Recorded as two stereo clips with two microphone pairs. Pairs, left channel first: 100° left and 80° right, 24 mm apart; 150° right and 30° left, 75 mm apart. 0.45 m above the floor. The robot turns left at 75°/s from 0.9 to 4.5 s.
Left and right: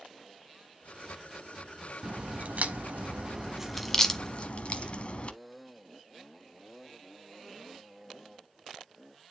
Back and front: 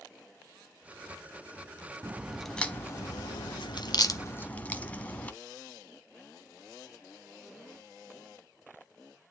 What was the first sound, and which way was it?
A crack, 35° right.